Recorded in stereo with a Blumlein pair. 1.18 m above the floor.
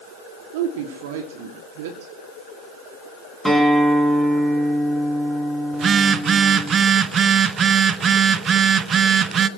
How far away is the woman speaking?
About 2.5 m.